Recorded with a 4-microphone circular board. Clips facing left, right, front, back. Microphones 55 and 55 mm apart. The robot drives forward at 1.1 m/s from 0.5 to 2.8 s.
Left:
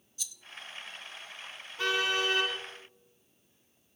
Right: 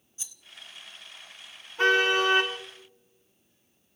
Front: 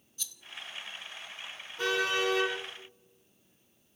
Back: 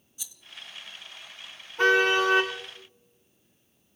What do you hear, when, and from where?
0.2 s a rattle: 115° right, 0.8 m
1.8 s a car horn: 150° right, 7 m